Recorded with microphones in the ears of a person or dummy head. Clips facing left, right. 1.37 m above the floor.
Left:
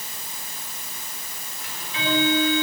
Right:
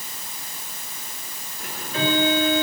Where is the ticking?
40° right (ahead or behind), 4.5 m.